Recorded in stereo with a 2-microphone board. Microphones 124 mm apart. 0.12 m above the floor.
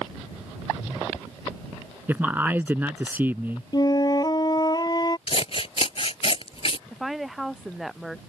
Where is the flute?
35° left (ahead or behind).